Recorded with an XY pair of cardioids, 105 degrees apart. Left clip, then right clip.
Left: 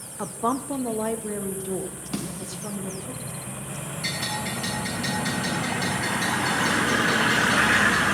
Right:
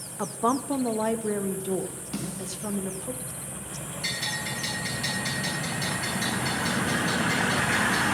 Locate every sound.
0.2 s a woman speaking: 5° right, 0.9 m; by 3.1 s 20° right, 2.5 m
2.1 s a snare drum: 30° left, 3 m
4.0 s a bell: straight ahead, 9.5 m